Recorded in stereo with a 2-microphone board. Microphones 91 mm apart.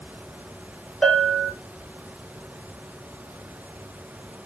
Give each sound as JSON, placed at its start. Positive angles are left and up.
{"t": 1.0, "sound": "a bell", "side_deg": 0, "distance_m": 0.7}